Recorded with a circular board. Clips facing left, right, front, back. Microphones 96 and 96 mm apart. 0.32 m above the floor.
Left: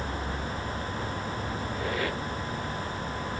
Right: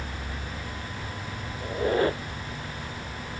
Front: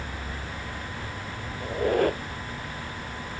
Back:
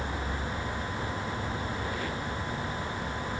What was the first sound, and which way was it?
A squeak, 35° right.